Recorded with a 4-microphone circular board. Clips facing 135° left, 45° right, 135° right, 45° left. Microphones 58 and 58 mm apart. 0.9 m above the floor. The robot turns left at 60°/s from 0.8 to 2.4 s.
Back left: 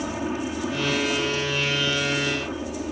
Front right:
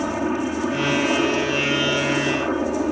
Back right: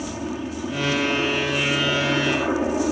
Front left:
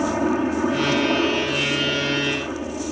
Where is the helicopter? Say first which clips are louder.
Front right 5 dB, front left 8 dB; 15° left; by 2.9 s 80° right.